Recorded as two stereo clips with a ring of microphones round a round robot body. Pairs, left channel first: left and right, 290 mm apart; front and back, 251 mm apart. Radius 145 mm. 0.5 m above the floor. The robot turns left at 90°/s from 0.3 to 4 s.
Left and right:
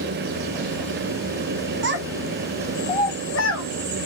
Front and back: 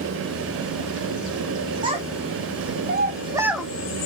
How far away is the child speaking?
About 0.8 m.